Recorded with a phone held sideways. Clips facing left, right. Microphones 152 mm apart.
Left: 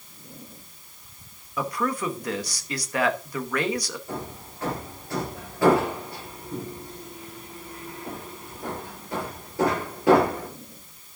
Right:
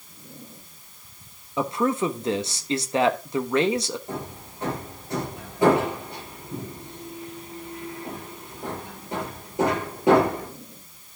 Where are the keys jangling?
I don't hear keys jangling.